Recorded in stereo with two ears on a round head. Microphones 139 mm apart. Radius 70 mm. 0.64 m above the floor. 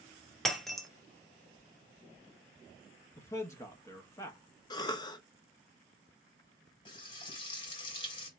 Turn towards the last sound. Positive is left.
turn(degrees=35)  # may be behind; listen again after turning